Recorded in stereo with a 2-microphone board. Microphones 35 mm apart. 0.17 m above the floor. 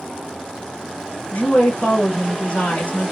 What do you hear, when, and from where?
1.3 s a woman speaking: 35° left (ahead or behind), 1.9 m